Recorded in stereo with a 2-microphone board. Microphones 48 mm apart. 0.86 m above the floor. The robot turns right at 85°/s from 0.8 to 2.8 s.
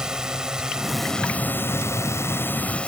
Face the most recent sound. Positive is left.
turn(degrees=155)